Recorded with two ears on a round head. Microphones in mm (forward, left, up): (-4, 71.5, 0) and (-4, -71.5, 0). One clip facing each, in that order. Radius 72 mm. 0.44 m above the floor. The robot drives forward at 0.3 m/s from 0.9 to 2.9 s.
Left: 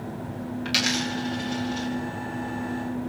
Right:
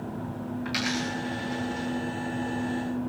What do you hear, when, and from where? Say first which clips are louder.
0.7 s a dropped coin: left 2 dB; 35° left (ahead or behind), 9.5 m